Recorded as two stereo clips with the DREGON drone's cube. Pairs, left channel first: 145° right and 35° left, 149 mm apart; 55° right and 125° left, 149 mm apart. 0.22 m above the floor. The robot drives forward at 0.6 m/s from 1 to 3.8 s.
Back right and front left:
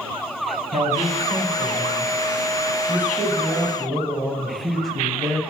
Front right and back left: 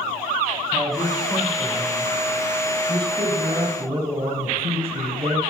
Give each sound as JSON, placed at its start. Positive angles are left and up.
{"t": 0.7, "sound": "a man speaking", "azimuth_deg": 40, "distance_m": 1.8}